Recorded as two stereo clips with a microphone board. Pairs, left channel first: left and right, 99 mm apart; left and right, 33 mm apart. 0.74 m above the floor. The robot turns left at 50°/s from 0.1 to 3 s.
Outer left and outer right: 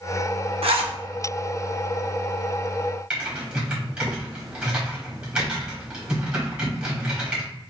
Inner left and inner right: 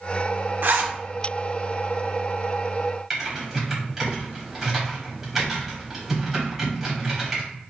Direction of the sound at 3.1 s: 10° right (ahead or behind).